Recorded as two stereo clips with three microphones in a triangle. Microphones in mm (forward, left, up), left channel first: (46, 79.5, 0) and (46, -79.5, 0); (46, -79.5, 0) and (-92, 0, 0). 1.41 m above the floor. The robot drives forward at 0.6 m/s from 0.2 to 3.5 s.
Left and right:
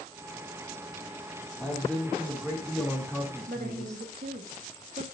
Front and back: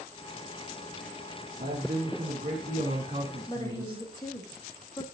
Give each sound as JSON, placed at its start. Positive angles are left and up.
{"t": 1.6, "sound": "a man speaking", "azimuth_deg": 170, "distance_m": 2.0}
{"t": 3.5, "sound": "a woman speaking", "azimuth_deg": -95, "distance_m": 2.0}